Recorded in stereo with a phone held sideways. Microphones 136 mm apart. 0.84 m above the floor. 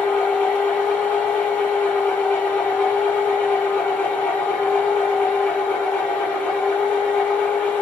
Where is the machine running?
10° left (ahead or behind), 1.1 m.